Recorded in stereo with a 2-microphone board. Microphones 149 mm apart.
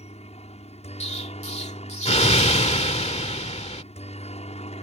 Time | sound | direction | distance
0.0 | a helicopter | 45° left (ahead or behind) | ?
1.0 | an explosion | 45° left (ahead or behind) | ?